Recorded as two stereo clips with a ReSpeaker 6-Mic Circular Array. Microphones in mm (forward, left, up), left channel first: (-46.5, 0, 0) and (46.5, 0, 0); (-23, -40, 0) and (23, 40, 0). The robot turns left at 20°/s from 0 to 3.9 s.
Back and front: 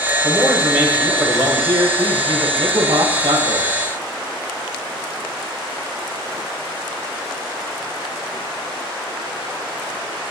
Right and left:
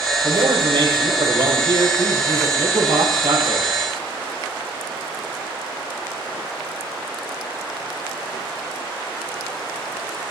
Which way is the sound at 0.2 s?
85° left.